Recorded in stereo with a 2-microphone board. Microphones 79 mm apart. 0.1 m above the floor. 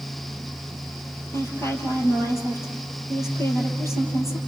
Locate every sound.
1.3 s a woman speaking: 35° left (ahead or behind), 3 m